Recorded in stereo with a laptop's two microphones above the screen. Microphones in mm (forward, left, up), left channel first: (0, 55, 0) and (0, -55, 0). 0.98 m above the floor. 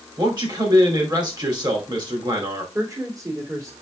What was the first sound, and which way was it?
A man speaking, 40° right (ahead or behind).